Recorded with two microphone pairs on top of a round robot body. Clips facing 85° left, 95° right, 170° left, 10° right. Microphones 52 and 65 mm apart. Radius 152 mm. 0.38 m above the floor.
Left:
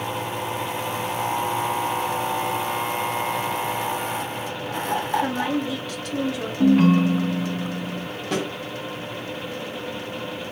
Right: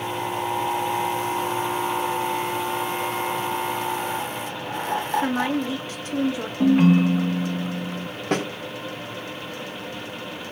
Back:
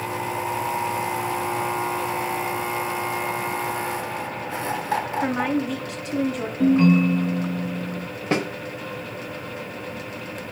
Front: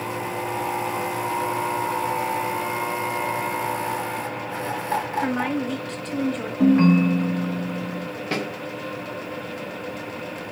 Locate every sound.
5.2 s a woman speaking: 95° right, 0.9 m
6.6 s a ringtone: 5° right, 0.8 m
8.3 s a snare drum: 125° right, 1.0 m